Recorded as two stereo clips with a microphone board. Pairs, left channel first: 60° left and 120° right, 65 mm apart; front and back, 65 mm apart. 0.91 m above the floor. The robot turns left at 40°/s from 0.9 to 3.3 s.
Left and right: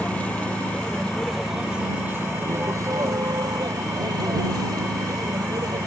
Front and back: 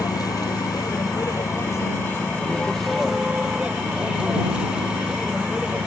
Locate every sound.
0.0 s a vehicle: 10° right; by 5.9 s 105° right